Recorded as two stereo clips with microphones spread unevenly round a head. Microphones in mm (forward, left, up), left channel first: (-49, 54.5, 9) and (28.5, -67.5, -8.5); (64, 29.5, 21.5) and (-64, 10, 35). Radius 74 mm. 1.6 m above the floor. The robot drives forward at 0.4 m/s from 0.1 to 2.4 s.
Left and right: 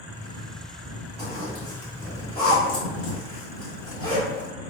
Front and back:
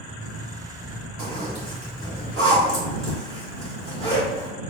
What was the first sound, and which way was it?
A zipper, 160° left.